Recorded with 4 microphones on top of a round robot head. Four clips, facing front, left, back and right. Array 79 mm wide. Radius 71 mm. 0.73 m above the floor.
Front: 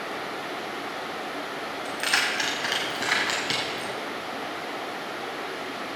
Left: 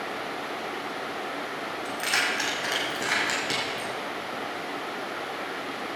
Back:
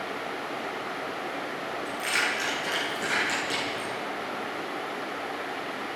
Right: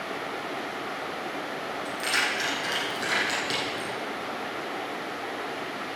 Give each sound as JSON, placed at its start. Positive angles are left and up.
{"t": 1.9, "sound": "keys jangling", "azimuth_deg": 15, "distance_m": 4.0}